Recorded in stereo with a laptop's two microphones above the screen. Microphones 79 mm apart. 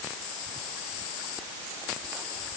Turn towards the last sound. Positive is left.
No sound to turn to.